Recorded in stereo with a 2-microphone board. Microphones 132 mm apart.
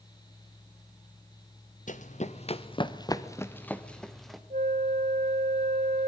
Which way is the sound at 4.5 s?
80° right.